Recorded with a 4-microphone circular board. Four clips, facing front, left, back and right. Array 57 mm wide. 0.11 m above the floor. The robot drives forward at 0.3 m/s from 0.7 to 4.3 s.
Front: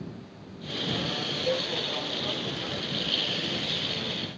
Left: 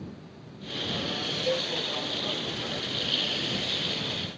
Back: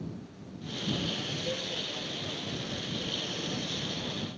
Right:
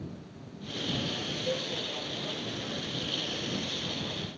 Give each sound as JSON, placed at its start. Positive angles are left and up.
{"t": 1.5, "sound": "a cowbell", "azimuth_deg": 65, "distance_m": 1.1}